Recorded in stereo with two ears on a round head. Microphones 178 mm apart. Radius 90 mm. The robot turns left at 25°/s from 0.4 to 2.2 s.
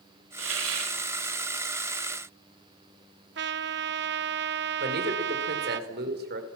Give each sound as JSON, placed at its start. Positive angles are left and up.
{"t": 0.4, "sound": "a hiss", "side_deg": -70, "distance_m": 5.0}
{"t": 3.4, "sound": "a trumpet", "side_deg": -60, "distance_m": 0.9}
{"t": 4.8, "sound": "a man speaking", "side_deg": -55, "distance_m": 5.0}